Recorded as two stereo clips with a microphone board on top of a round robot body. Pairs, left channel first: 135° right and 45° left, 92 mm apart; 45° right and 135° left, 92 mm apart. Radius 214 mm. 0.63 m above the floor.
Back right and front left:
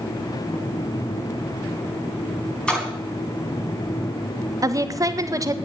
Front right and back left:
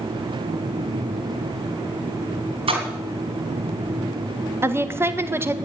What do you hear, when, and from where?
2.7 s a splash: 145° left, 3.5 m
4.6 s a woman speaking: 80° left, 1.5 m